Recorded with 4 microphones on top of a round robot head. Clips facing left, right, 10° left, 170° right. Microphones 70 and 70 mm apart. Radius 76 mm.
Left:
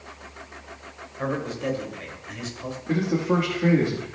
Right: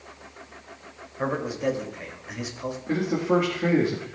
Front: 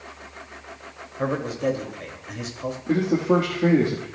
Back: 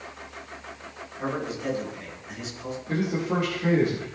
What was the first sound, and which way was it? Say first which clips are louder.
A man speaking: right 1 dB, front 5 dB; 15° right.